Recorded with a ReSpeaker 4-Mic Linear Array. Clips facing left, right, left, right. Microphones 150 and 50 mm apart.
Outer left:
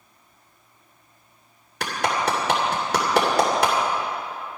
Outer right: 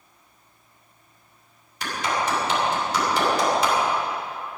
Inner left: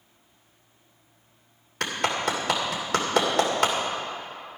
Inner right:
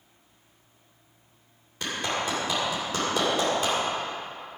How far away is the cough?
I don't hear a cough.